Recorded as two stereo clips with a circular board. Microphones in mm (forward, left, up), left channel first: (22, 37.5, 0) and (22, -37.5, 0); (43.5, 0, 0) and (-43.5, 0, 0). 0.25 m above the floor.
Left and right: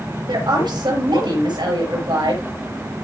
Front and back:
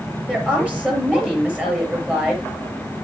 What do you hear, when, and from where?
0.3 s a woman speaking: 105° right, 6 m